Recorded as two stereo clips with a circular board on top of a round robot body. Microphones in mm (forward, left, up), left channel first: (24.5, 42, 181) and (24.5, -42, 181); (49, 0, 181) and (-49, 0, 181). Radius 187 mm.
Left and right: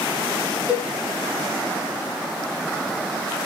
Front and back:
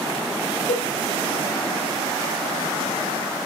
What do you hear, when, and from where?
0.7 s a cowbell: 15° right, 4 m